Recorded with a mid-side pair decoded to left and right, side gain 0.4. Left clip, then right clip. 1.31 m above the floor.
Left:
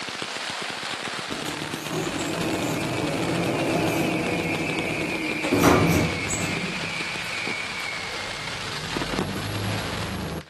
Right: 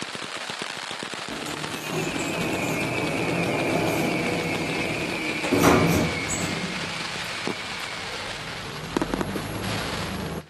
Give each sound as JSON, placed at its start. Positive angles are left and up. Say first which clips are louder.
{"t": 1.3, "sound": "a sliding door", "louder": "left 1 dB", "azimuth_deg": -5, "distance_m": 1.0}